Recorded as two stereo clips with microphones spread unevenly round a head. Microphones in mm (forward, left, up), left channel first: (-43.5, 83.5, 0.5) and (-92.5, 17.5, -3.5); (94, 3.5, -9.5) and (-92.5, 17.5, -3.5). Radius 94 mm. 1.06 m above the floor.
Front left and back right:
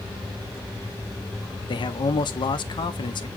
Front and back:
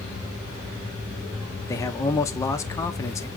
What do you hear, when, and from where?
1.7 s a man speaking: 70° left, 0.6 m